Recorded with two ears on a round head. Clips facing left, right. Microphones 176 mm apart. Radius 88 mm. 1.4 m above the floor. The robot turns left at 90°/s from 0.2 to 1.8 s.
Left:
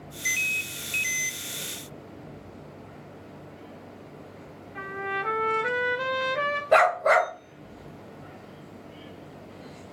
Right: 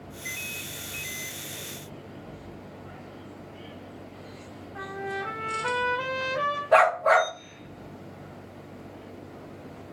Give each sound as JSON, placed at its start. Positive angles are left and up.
{"t": 4.8, "sound": "a trumpet", "side_deg": 30, "distance_m": 0.8}
{"t": 6.7, "sound": "a dog barking", "side_deg": 30, "distance_m": 1.5}